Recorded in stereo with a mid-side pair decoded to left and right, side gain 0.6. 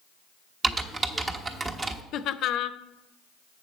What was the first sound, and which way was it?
Typing on a keyboard, 25° right.